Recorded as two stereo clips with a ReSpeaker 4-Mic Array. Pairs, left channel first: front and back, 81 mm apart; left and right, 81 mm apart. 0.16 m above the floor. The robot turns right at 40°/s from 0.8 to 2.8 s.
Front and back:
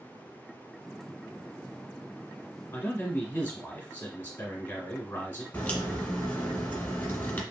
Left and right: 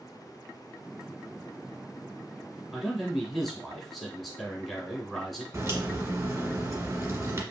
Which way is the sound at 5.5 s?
60° right.